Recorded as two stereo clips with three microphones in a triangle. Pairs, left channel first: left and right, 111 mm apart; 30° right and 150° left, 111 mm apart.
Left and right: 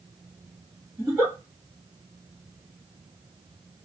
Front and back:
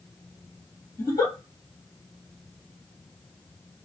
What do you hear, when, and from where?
1.0 s a giggle: 45° right, 2 m